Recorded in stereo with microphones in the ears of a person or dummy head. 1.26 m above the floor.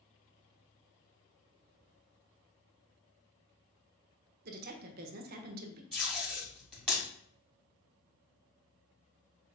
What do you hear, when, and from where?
4.5 s a woman speaking: 50° right (ahead or behind), 0.9 m
5.9 s tape being pulled: 5° left (ahead or behind), 2.5 m